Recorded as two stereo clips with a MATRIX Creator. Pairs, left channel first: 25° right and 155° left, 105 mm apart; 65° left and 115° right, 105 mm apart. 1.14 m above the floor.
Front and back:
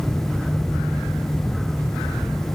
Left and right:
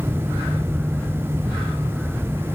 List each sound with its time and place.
Only background noise.